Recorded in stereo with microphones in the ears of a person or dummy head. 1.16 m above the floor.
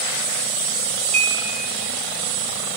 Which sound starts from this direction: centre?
Dishes clattering, at 1.1 s.